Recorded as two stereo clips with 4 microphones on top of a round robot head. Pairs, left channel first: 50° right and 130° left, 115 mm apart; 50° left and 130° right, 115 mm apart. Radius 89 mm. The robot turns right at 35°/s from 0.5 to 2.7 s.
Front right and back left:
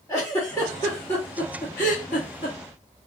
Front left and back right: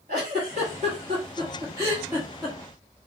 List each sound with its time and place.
0.1 s a giggle: 115° right, 1.4 m; by 2.6 s 40° right, 1.4 m